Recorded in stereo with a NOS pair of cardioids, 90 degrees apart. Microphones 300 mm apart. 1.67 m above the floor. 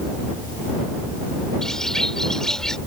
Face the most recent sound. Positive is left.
turn(degrees=0)